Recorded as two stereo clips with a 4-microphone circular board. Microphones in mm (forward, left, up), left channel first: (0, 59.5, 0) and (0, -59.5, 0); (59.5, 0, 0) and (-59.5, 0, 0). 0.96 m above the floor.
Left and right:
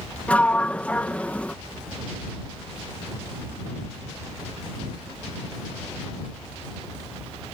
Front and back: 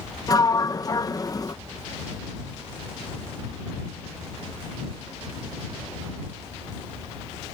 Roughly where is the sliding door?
Ahead.